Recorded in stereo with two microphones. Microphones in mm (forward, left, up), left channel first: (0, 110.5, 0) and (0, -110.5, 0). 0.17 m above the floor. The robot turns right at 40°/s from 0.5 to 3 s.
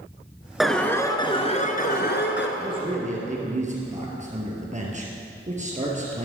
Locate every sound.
0.6 s an alarm: straight ahead, 1.5 m; by 2.5 s 75° left, 1.5 m
2.6 s a man speaking: 20° right (ahead or behind), 3 m; by 6.2 s 35° right (ahead or behind), 3 m